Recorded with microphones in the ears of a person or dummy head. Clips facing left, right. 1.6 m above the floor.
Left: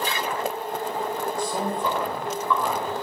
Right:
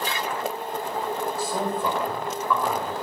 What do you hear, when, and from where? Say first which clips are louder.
1.4 s a man speaking: left 1 dB; 5° right (ahead or behind), 2.5 m